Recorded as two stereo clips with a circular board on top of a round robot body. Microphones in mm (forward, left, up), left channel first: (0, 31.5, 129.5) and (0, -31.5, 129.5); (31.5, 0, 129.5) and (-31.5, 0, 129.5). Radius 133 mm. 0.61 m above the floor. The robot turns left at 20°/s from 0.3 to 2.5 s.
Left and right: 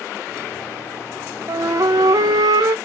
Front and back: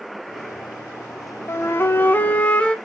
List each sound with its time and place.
1.5 s a flute: 50° right, 0.9 m; by 2.8 s 70° right, 0.9 m